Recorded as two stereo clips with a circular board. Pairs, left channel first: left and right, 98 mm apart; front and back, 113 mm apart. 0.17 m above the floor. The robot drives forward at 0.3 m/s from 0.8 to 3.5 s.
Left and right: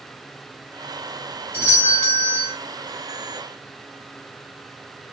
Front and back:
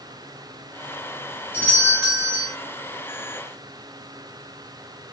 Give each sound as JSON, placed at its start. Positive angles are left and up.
{"t": 1.5, "sound": "a doorbell", "azimuth_deg": 130, "distance_m": 1.7}